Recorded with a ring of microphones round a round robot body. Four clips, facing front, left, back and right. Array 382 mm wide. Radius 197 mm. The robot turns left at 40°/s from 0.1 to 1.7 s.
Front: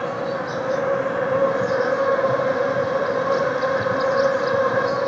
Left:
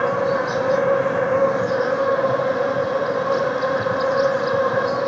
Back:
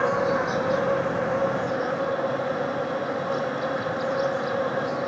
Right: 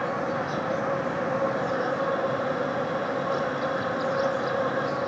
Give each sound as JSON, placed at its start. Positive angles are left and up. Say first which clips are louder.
{"t": 0.0, "sound": "an insect", "louder": "left 8 dB, back 2 dB", "azimuth_deg": 105}